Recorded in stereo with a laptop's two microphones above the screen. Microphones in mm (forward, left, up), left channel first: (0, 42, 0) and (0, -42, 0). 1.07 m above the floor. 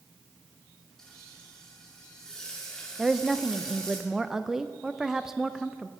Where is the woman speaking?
5° right (ahead or behind), 0.5 m.